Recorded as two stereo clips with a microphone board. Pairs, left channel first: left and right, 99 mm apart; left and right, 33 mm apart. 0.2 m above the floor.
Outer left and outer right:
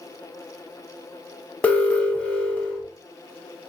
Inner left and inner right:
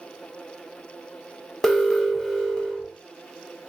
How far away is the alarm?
About 0.8 m.